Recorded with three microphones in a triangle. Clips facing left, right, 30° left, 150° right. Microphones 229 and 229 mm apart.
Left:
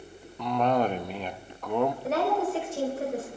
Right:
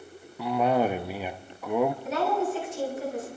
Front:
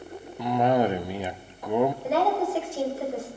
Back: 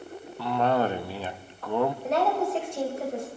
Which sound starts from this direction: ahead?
A cough, at 0.4 s.